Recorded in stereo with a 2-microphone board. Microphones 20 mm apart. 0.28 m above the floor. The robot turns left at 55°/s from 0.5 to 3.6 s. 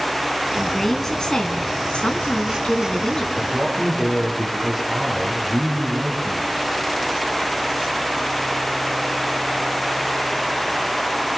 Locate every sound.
0.6 s a woman speaking: straight behind, 3 m; by 3.2 s 35° left, 3 m
3.4 s a man speaking: 15° left (ahead or behind), 7.5 m; by 6.5 s centre (ahead or behind), 7.5 m